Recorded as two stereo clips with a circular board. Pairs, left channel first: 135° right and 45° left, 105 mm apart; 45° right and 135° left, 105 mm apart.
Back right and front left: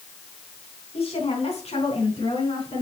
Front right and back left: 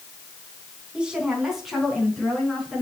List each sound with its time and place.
0.9 s a woman speaking: 145° right, 3.5 m; by 2.8 s 130° right, 5 m